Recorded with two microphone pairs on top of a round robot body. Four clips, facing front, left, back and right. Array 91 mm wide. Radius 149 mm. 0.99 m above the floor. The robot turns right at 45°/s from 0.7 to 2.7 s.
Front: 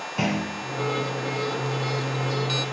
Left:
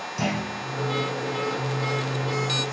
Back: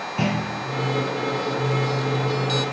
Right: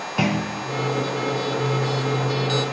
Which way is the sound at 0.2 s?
85° right.